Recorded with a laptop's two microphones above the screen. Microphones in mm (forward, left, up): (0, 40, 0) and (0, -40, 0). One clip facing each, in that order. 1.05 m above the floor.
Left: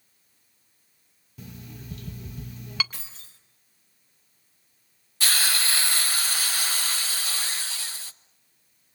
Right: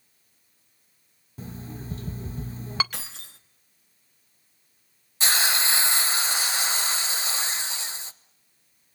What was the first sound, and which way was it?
An alarm clock, 35° right (ahead or behind).